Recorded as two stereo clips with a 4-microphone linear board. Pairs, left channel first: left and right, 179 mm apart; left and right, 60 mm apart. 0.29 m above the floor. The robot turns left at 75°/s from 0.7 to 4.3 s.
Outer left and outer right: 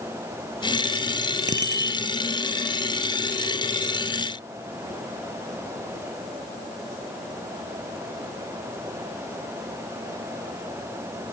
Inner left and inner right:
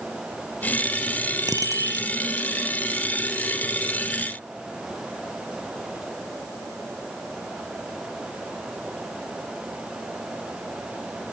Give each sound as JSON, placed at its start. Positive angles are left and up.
{"t": 1.5, "sound": "a bicycle bell", "azimuth_deg": -85}